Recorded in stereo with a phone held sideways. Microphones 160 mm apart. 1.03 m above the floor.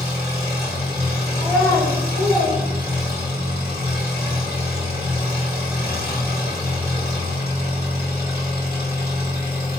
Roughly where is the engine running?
Left.